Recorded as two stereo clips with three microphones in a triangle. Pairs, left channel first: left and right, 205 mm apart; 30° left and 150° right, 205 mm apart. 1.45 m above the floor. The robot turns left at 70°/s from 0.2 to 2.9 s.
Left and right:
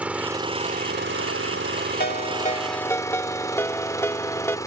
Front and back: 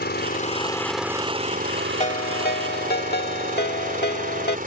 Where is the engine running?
5° right; by 4.7 s 165° left.